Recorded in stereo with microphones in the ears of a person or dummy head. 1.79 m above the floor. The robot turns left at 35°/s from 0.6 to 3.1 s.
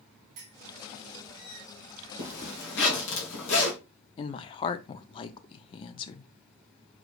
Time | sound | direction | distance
0.4 | a clink | 40° right (ahead or behind) | 1.5 m
2.2 | a zipper | 120° left | 1.7 m
4.2 | a woman speaking | 30° left (ahead or behind) | 0.5 m